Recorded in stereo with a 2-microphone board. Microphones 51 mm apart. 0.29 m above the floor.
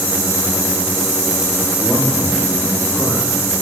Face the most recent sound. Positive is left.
turn(degrees=40)  # may be behind; listen again after turning